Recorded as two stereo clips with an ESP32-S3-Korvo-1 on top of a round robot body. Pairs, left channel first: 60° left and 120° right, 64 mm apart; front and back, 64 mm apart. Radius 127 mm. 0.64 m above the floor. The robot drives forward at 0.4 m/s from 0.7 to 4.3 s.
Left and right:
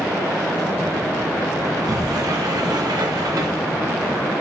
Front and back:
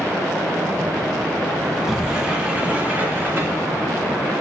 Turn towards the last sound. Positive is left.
turn(degrees=-135)